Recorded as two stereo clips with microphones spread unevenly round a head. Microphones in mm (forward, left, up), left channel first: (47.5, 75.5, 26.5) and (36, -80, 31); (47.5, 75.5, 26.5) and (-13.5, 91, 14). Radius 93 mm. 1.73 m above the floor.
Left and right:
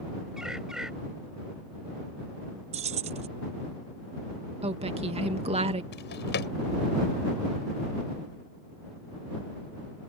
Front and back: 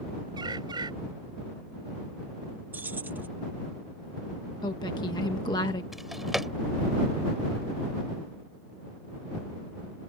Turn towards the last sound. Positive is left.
turn(degrees=75)